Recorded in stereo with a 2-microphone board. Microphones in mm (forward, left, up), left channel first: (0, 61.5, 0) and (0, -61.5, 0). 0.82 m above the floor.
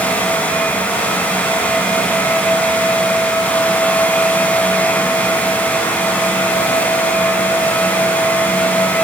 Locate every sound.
Only background noise.